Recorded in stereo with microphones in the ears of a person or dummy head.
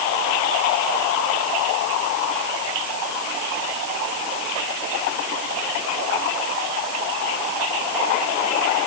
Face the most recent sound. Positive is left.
No sound to turn to.